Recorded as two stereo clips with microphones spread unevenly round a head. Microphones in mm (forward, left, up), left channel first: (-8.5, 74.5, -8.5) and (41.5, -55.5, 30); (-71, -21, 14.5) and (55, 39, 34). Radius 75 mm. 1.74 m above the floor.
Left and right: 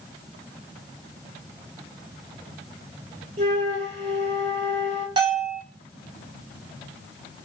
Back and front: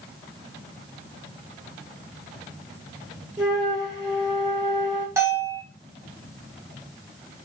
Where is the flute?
35° right, 3 m.